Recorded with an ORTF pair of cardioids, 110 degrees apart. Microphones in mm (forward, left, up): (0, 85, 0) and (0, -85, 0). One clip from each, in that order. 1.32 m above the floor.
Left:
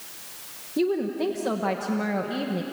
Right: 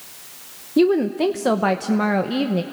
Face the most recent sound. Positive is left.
turn(degrees=-40)